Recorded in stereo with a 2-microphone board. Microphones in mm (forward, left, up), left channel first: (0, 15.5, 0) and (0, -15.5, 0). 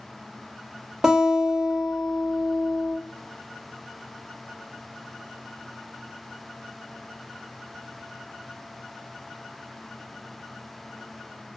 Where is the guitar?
20° right (ahead or behind), 1.2 m.